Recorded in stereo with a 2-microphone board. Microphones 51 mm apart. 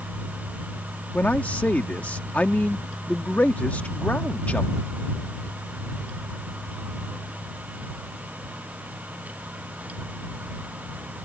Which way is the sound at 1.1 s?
30° left (ahead or behind).